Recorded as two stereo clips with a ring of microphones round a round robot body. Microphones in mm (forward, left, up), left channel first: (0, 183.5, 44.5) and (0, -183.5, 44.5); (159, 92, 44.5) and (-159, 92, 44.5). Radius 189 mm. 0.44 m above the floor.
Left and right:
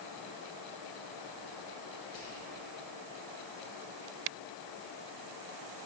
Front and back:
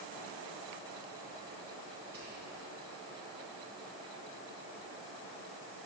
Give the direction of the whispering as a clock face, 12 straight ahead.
8 o'clock.